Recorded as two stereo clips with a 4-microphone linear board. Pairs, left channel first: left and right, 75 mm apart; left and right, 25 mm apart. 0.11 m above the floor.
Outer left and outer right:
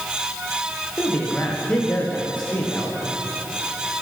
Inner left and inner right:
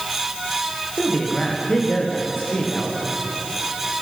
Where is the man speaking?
15° left (ahead or behind), 7.5 m.